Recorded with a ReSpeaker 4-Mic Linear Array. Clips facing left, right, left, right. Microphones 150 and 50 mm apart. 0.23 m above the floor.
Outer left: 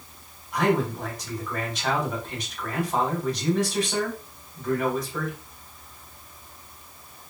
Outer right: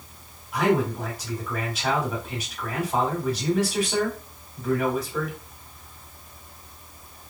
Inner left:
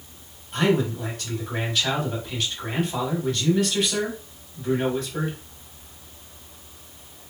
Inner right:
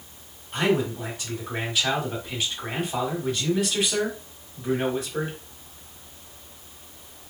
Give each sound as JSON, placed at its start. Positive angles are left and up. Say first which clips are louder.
{"t": 0.5, "sound": "a man speaking", "louder": "outer right 1 dB, inner left 1 dB", "side_deg": -10, "distance_m": 1.2}